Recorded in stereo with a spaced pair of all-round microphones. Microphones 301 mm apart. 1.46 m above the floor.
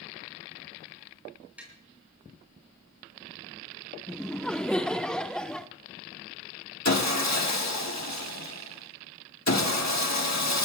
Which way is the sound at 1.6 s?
5° right (ahead or behind).